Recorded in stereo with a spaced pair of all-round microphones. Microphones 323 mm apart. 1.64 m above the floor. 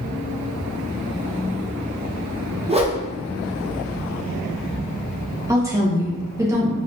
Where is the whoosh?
20° right (ahead or behind), 0.7 m.